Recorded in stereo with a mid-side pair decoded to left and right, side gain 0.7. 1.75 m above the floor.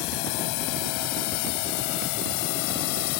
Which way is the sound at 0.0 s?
70° left.